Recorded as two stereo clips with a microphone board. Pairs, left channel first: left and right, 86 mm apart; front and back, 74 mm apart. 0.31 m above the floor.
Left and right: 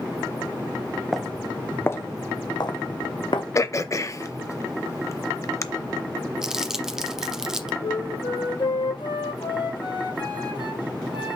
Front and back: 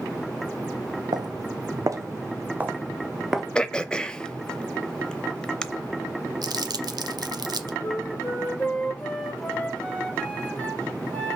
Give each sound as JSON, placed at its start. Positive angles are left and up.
{"t": 1.1, "sound": "footsteps", "azimuth_deg": 180, "distance_m": 0.9}
{"t": 3.5, "sound": "throat clearing", "azimuth_deg": 75, "distance_m": 0.6}
{"t": 6.4, "sound": "crumpling", "azimuth_deg": -170, "distance_m": 0.8}
{"t": 7.8, "sound": "a flute", "azimuth_deg": 75, "distance_m": 2.0}